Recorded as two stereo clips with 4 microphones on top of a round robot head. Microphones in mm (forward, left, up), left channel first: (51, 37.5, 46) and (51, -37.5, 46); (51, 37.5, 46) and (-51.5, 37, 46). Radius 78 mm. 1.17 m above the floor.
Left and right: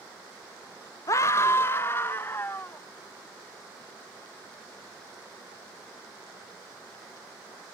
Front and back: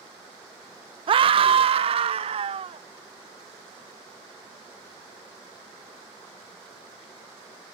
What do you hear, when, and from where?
1.1 s a scream: 145° left; by 2.8 s 160° left